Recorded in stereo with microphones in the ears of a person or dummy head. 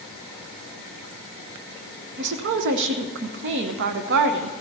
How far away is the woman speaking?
About 0.8 m.